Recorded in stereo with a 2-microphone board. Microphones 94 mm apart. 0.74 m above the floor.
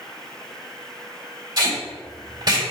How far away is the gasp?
No gasp in this recording.